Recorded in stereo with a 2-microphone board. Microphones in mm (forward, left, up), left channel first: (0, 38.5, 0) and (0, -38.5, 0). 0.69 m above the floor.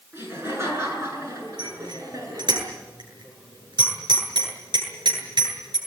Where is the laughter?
30° right (ahead or behind), 9 m; by 2.6 s 50° right (ahead or behind), 9.5 m.